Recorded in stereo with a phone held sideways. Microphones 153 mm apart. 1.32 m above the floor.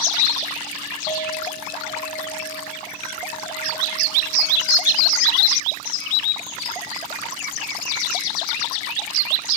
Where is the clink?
55° left (ahead or behind), 3.5 m.